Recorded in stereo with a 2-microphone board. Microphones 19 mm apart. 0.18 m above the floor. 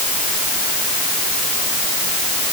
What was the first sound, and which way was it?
Only background noise.